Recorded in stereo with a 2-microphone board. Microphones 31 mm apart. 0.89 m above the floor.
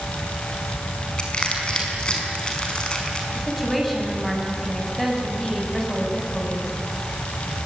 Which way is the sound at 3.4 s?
Centre (ahead or behind).